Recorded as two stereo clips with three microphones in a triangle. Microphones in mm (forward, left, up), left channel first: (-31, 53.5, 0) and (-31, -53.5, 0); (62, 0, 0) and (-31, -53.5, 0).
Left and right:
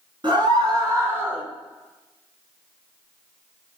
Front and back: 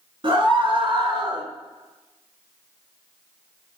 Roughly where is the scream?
Behind right.